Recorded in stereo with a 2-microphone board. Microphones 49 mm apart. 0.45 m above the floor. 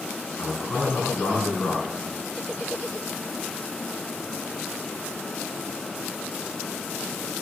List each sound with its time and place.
0.4 s a man speaking: 40° left (ahead or behind), 5 m